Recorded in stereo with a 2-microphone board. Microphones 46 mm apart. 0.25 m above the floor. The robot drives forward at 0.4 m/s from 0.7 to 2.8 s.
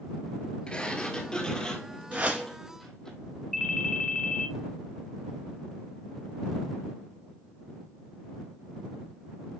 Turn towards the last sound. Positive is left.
turn(degrees=0)  # may be behind; listen again after turning